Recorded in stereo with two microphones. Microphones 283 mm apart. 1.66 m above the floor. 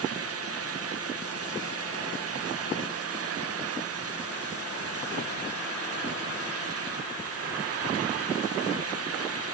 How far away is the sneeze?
No sneeze in this recording.